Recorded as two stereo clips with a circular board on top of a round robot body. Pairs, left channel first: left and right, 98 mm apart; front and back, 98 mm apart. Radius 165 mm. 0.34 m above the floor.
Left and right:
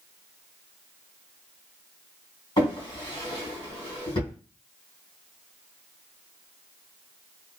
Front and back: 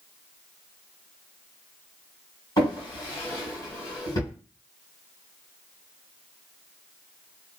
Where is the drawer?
50° left, 1.8 m.